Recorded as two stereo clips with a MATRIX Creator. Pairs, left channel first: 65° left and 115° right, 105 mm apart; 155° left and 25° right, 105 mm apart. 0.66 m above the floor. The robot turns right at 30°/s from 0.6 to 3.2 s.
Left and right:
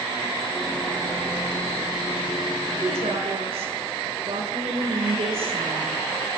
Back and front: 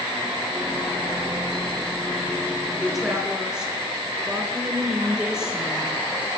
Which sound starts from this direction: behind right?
A woman speaking, at 2.8 s.